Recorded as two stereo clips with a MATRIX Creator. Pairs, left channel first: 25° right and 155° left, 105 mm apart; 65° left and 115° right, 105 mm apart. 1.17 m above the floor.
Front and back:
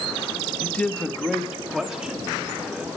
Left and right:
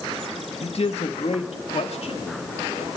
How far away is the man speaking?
About 1.7 m.